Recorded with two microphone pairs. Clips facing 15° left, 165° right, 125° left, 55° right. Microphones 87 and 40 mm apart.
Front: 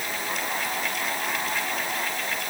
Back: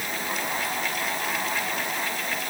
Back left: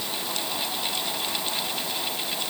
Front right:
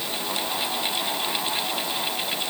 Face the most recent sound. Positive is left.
No sound to turn to.